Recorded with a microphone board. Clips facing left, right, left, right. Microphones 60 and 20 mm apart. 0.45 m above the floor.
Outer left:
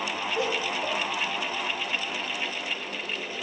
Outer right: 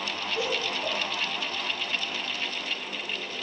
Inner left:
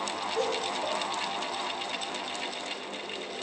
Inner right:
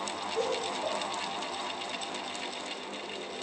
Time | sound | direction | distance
0.3 | laughter | 25° left (ahead or behind) | 2.5 m